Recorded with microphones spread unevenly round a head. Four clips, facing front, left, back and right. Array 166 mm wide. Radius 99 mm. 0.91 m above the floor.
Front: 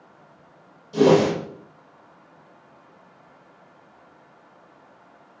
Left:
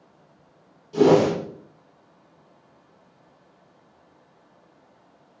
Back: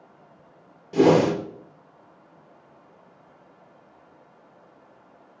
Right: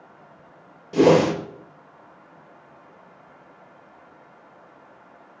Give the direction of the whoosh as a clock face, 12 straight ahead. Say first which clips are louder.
Right 1 dB, front 1 dB; 4 o'clock.